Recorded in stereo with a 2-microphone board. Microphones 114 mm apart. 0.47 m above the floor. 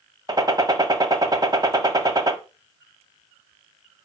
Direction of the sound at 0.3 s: 35° right (ahead or behind).